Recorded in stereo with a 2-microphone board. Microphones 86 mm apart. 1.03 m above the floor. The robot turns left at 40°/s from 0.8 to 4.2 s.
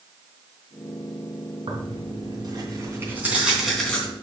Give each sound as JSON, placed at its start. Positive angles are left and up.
{"t": 1.7, "sound": "tearing paper", "azimuth_deg": -100, "distance_m": 3.0}